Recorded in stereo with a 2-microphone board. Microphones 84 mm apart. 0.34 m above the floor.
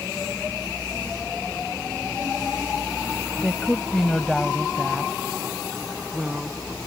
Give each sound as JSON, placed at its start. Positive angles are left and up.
{"t": 3.4, "sound": "a woman speaking", "side_deg": 15}